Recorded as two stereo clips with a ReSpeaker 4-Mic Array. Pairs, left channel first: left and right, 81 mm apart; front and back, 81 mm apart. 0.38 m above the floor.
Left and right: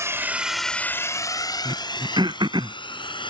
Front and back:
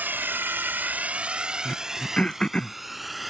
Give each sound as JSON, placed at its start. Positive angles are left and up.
{"t": 0.0, "sound": "a drone", "azimuth_deg": -125}
{"t": 1.6, "sound": "throat clearing", "azimuth_deg": -80}